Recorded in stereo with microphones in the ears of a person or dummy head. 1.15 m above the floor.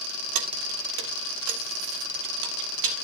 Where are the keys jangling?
70° right (ahead or behind), 0.9 m.